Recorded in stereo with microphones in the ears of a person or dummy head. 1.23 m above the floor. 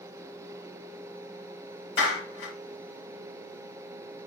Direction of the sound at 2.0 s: 70° left (ahead or behind).